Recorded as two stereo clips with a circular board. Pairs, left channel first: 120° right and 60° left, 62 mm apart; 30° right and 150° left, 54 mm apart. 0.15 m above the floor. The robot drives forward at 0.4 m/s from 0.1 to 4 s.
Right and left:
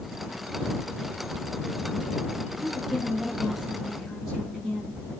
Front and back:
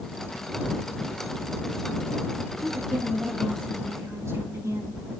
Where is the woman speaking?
140° left, 8.5 m; by 5.0 s 145° left, 9 m.